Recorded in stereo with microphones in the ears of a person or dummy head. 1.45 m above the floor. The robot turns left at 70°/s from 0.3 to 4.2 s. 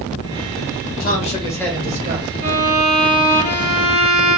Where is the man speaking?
50° left, 1.7 m; by 2.3 s 40° right, 1.7 m.